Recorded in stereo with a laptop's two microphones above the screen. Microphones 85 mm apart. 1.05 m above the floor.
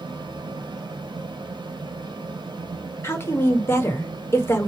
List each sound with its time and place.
0.0 s a fan: 75° right (ahead or behind), 0.7 m
3.0 s a woman speaking: 30° left (ahead or behind), 1.5 m